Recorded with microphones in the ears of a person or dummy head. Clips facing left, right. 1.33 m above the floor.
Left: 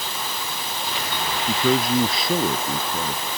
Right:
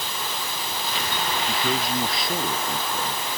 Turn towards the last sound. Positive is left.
turn(degrees=75)  # may be behind; listen again after turning